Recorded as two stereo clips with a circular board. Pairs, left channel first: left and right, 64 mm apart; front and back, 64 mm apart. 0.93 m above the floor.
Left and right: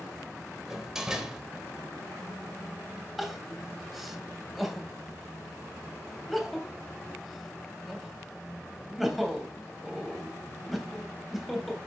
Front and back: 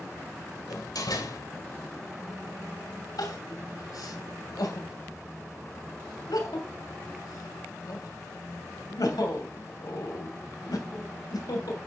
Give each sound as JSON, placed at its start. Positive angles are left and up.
{"t": 0.7, "sound": "a door slam", "azimuth_deg": -10, "distance_m": 3.0}
{"t": 3.2, "sound": "crying", "azimuth_deg": 0, "distance_m": 2.5}